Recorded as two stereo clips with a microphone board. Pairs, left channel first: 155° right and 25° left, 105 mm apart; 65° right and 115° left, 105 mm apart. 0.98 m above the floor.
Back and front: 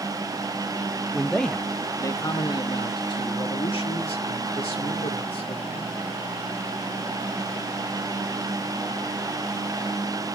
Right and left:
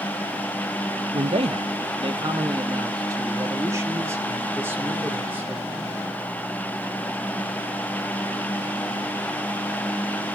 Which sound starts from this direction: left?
A man speaking, at 1.1 s.